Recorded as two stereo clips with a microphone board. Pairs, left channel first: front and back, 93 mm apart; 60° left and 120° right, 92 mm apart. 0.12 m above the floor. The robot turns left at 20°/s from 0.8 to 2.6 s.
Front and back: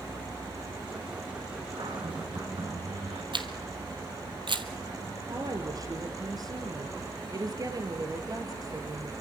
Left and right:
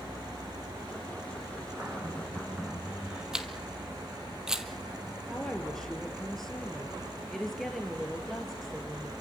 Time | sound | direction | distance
1.8 | a cupboard door | straight behind | 7.5 m
3.3 | a camera shutter | 155° left | 1.9 m
5.3 | a woman speaking | 145° left | 2.5 m